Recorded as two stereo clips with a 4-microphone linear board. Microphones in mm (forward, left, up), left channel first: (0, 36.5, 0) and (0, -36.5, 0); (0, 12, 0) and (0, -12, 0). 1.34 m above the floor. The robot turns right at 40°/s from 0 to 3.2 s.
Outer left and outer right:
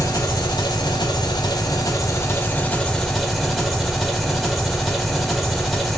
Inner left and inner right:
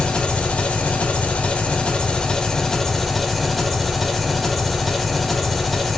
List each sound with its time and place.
0.0 s an engine running: 50° left, 1.2 m; by 6.0 s straight behind, 1.2 m